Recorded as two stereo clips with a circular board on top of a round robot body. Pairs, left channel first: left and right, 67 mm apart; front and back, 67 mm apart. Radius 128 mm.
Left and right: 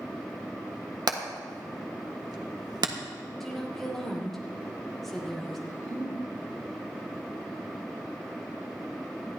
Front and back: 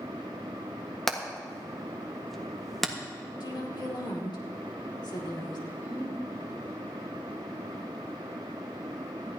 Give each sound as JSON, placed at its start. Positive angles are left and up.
{"t": 1.1, "sound": "hammering", "azimuth_deg": -85, "distance_m": 1.6}
{"t": 3.4, "sound": "a woman speaking", "azimuth_deg": 0, "distance_m": 2.5}
{"t": 5.7, "sound": "a giggle", "azimuth_deg": -120, "distance_m": 4.5}